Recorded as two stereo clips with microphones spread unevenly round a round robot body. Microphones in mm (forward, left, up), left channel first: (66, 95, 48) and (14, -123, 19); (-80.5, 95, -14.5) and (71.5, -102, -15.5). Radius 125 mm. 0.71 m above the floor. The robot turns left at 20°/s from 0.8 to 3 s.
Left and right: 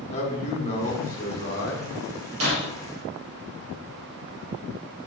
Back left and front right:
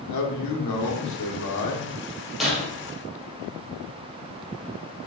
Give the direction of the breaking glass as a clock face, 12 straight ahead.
5 o'clock.